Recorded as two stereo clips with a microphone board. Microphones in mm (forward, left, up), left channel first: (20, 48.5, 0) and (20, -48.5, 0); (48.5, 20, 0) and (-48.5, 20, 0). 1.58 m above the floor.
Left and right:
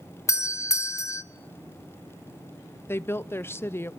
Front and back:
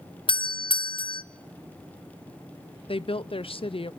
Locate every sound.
0.3 s a doorbell: 30° left, 0.6 m
2.9 s a woman speaking: 25° left, 0.6 m